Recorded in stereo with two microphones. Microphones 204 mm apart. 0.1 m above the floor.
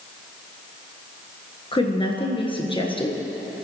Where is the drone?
I don't hear a drone.